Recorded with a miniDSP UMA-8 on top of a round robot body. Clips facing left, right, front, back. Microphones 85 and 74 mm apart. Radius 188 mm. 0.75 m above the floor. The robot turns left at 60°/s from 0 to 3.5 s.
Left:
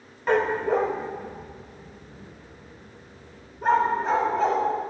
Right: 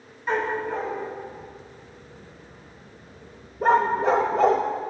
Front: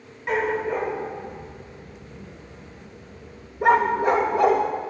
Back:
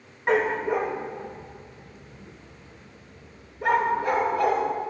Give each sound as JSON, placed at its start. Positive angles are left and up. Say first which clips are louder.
{"t": 0.3, "sound": "a dog barking", "louder": "left 4 dB, back 1 dB", "azimuth_deg": 130, "distance_m": 0.8}